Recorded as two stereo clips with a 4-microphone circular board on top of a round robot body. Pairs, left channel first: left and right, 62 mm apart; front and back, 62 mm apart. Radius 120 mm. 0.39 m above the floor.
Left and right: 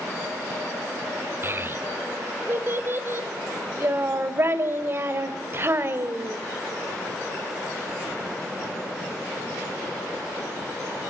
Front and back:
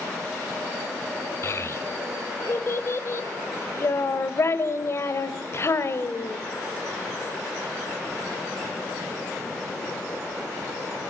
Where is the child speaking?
40° right, 1.8 m.